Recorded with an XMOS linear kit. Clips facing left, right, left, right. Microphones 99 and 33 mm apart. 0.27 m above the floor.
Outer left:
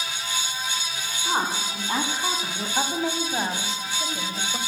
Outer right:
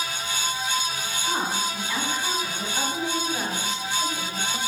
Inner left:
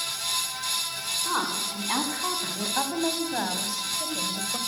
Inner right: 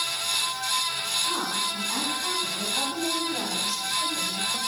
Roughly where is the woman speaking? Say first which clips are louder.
Outer left 1 dB, inner right 1 dB; left.